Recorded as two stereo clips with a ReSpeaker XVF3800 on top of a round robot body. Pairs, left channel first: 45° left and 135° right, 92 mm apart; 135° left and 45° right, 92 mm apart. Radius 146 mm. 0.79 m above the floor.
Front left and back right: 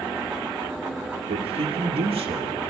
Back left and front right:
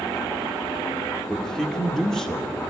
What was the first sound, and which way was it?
A man speaking, 140° right.